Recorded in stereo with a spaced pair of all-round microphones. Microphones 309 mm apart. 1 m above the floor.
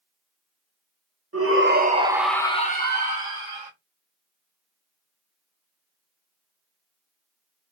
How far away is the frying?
I don't hear frying.